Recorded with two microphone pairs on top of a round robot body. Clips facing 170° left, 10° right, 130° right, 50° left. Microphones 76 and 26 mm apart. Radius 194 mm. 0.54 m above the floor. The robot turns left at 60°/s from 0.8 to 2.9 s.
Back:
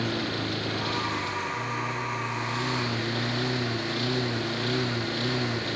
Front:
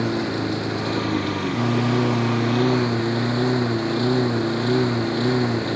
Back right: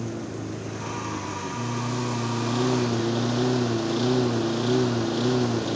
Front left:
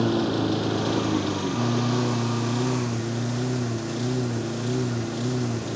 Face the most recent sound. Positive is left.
turn(degrees=-70)